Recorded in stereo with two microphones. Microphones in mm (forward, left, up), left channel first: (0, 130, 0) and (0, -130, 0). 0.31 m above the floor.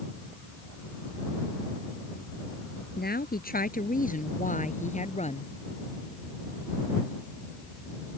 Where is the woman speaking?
35° left (ahead or behind); by 5.5 s 25° left (ahead or behind).